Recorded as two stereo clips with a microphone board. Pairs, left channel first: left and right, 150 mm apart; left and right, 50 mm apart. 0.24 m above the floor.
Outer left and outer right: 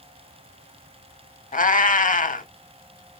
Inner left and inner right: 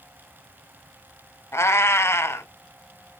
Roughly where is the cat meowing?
Left.